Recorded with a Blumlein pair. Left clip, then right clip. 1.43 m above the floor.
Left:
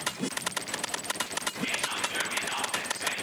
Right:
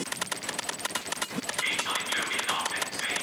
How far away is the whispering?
About 0.9 m.